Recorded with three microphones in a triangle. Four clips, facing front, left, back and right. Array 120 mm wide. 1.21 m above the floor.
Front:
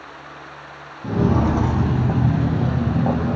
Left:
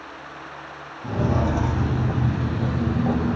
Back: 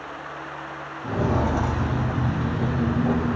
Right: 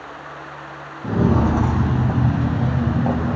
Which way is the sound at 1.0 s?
55° right.